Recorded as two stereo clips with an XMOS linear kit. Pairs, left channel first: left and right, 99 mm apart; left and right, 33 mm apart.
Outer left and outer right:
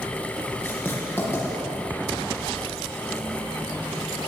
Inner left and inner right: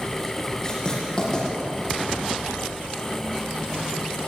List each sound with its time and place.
0.6 s writing: 20° left (ahead or behind), 9.5 m